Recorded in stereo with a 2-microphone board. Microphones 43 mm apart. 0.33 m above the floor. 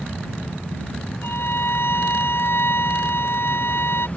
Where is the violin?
60° left (ahead or behind).